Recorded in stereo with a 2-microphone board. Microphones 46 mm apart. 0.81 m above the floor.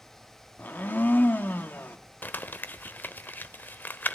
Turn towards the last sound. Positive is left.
turn(degrees=45)  # may be behind; listen again after turning